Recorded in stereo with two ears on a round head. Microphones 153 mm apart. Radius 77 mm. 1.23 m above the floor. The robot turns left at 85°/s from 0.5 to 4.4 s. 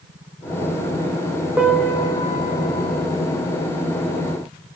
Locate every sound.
1.6 s a piano: 170° right, 0.5 m; by 3.0 s 65° left, 0.5 m